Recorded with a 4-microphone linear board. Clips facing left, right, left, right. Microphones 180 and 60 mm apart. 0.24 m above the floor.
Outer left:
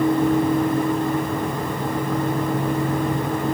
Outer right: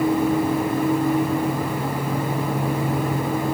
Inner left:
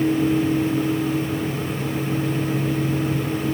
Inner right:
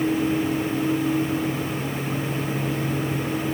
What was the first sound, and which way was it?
Only background noise.